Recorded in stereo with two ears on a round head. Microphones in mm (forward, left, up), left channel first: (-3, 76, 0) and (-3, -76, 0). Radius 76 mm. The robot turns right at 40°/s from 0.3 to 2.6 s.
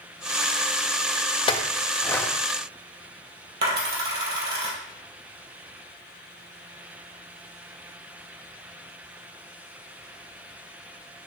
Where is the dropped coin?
70° right (ahead or behind), 2 m.